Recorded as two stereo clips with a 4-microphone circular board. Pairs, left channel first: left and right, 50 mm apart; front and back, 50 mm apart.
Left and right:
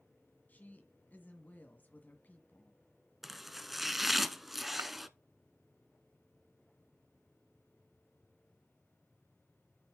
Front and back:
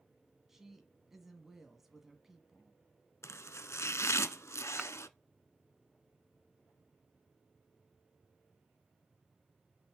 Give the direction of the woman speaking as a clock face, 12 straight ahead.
9 o'clock.